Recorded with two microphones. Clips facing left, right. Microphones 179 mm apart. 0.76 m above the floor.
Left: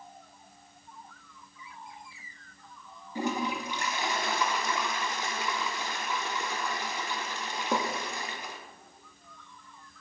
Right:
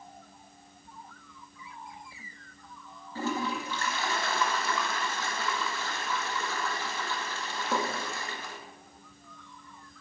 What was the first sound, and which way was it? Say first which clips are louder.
A toilet flushing: left 1 dB; 15° left (ahead or behind).